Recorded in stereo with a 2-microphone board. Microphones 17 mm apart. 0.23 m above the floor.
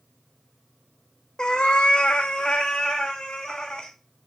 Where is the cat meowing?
55° left (ahead or behind), 1.0 m; by 3.9 s 45° left (ahead or behind), 3 m.